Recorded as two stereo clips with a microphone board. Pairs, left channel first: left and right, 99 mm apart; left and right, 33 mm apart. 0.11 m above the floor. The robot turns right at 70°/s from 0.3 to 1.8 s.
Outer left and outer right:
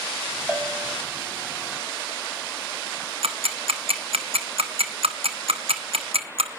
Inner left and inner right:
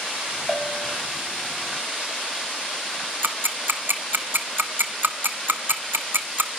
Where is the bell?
165° right, 3 m; by 0.9 s 135° right, 3 m.